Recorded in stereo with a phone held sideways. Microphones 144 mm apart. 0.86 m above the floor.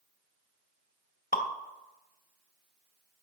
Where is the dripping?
80° left, 0.6 m.